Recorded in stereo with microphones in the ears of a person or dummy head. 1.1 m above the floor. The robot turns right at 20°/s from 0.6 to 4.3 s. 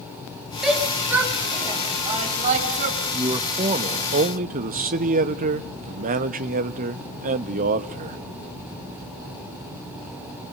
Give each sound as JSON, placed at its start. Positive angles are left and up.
{"t": 0.6, "sound": "a shout", "side_deg": 0, "distance_m": 5.0}
{"t": 3.1, "sound": "a man speaking", "side_deg": -20, "distance_m": 1.2}